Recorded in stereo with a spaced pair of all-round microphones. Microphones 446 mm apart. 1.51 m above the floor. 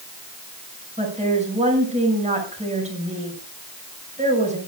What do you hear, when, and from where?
1.0 s a woman speaking: 15° right (ahead or behind), 6.5 m